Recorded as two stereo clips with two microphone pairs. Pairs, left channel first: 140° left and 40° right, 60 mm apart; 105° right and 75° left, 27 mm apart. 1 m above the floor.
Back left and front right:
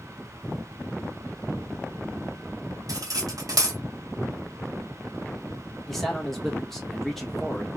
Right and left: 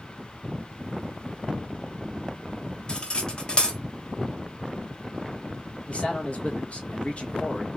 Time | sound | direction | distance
2.9 | cutlery clinking | 50° right | 1.1 m
5.9 | a man speaking | 135° right | 1.3 m